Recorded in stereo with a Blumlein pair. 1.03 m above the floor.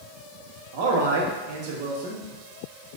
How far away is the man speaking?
About 0.7 m.